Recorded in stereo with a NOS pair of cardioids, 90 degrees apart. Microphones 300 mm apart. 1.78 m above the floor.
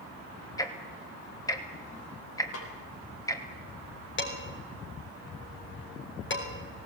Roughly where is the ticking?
Ahead.